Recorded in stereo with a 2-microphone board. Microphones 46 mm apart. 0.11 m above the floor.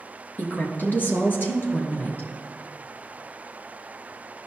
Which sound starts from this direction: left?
A woman speaking, at 0.4 s.